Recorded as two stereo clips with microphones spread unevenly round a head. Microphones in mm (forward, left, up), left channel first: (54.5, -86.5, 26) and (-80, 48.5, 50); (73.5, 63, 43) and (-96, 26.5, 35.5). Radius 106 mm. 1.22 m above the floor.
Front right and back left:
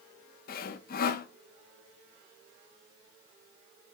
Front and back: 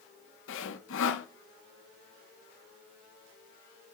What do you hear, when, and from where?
0.5 s sawing: straight ahead, 1.1 m